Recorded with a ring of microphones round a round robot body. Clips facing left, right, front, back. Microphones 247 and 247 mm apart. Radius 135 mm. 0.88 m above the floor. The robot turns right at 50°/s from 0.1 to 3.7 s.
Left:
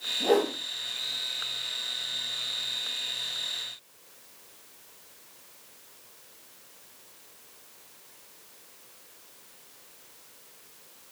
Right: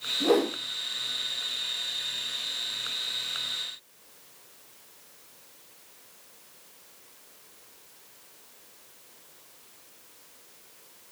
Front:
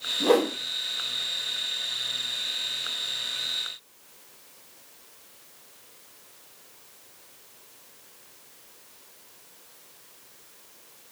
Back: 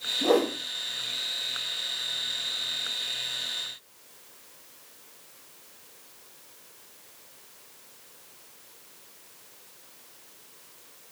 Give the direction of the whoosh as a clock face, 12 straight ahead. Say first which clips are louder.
Right 1 dB, front 2 dB; 1 o'clock.